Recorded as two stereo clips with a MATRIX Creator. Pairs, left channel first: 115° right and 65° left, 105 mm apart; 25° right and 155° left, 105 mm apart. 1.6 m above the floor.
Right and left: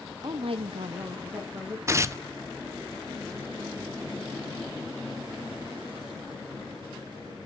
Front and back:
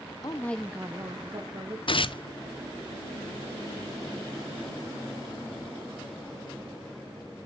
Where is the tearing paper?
5° left, 0.6 m.